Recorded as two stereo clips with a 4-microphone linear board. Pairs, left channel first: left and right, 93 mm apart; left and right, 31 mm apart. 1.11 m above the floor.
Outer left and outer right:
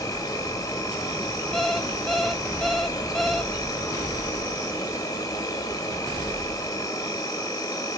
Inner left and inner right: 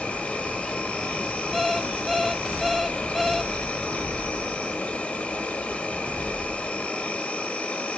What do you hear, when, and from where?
0.0 s an insect: 40° left (ahead or behind), 1.4 m
1.5 s an alarm clock: 5° left (ahead or behind), 0.5 m